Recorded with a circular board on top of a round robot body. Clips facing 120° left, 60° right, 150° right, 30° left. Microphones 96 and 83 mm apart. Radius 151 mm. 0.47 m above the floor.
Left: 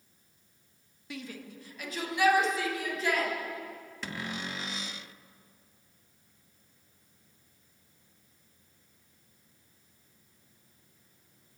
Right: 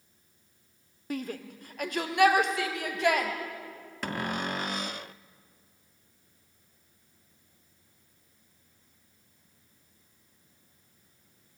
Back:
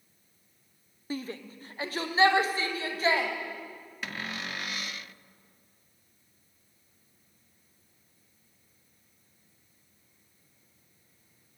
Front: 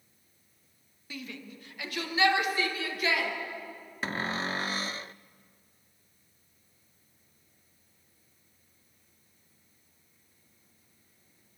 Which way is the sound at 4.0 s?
25° right.